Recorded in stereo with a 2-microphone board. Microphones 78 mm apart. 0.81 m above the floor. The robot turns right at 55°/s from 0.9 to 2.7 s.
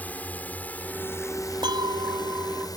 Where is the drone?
20° left (ahead or behind); by 2.8 s 55° left (ahead or behind).